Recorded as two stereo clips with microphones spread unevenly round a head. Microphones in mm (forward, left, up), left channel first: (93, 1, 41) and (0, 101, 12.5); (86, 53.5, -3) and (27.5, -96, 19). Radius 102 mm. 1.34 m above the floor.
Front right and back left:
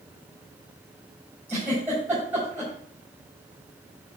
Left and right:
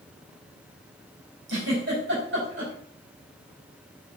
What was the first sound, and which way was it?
A giggle, 145° right.